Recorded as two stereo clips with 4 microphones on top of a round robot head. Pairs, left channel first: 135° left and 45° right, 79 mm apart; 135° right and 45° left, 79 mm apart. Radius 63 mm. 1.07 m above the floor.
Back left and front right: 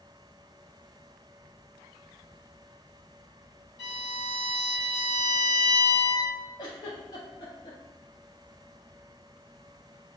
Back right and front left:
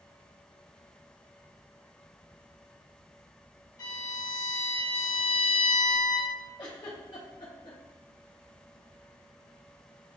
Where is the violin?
170° left, 1.4 m.